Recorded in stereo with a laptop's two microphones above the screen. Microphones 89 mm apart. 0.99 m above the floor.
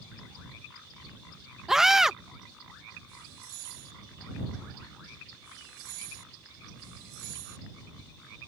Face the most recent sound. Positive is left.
turn(degrees=-5)  # may be behind; listen again after turning